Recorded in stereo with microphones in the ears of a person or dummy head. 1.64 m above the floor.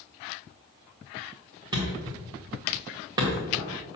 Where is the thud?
20° right (ahead or behind), 1.9 m.